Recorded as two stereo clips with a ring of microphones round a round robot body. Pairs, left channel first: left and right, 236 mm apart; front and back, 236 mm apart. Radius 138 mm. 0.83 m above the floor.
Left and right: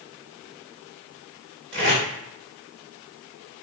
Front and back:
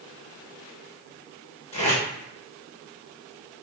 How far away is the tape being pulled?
About 1.9 m.